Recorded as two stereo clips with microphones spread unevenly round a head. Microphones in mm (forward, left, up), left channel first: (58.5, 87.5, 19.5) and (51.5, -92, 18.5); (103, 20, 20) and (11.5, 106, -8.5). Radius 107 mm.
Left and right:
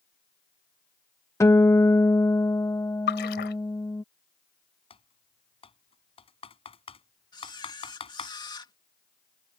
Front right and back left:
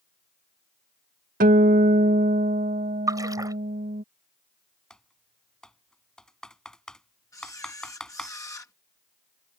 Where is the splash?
70° left.